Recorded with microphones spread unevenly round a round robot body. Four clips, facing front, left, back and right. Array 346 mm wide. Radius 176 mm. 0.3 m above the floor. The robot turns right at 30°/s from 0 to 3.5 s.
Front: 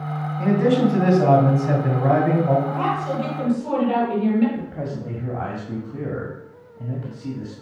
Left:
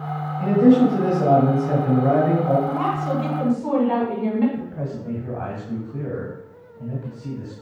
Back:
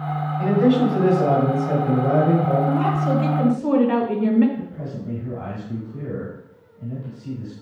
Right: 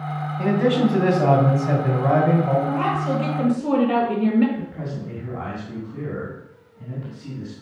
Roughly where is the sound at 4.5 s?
Ahead.